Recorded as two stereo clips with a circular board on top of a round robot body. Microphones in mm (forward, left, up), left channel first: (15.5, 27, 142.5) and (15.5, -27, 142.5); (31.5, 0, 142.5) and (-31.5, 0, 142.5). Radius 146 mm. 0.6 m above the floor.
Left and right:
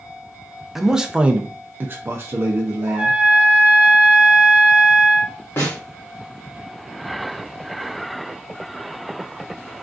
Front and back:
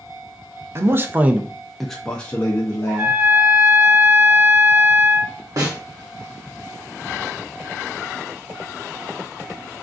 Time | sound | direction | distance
0.8 | a man speaking | 175° right | 0.7 m
2.9 | a trumpet | 150° right | 0.9 m
5.6 | a snare drum | 140° left | 1.0 m